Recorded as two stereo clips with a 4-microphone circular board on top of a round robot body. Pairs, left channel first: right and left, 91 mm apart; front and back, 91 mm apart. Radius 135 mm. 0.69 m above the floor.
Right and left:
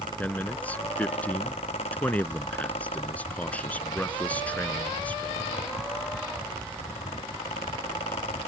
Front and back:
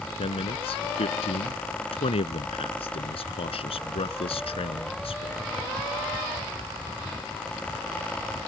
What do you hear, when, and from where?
0.2 s a man speaking: 15° right